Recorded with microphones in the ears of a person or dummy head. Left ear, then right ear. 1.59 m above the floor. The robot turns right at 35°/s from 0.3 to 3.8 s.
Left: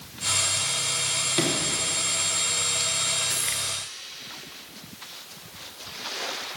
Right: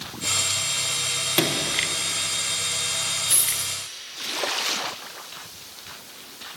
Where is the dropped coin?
10° right (ahead or behind), 1.9 m; by 3.7 s 20° right (ahead or behind), 1.9 m.